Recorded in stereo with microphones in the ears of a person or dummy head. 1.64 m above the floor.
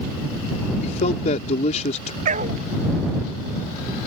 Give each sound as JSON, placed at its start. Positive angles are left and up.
{"t": 0.8, "sound": "a man speaking", "side_deg": 40}
{"t": 2.2, "sound": "a dog barking", "side_deg": -40}